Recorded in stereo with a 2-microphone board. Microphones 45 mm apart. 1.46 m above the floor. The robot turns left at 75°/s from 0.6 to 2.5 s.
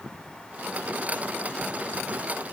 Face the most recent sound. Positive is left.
No sound to turn to.